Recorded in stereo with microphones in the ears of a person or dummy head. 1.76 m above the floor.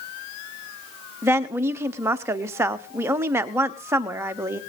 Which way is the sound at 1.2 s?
10° right (ahead or behind).